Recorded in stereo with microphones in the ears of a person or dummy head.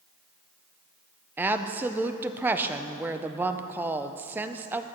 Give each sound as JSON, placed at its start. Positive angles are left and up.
{"t": 1.4, "sound": "a woman speaking", "side_deg": -10, "distance_m": 0.5}